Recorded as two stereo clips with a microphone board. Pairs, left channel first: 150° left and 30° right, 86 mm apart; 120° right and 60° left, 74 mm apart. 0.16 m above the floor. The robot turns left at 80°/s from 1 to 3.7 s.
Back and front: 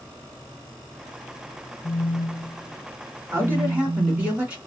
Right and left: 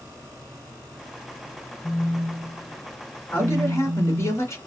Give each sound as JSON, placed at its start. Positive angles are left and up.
{"t": 1.8, "sound": "a phone buzzing", "azimuth_deg": 180, "distance_m": 0.7}
{"t": 3.3, "sound": "a man speaking", "azimuth_deg": -65, "distance_m": 1.9}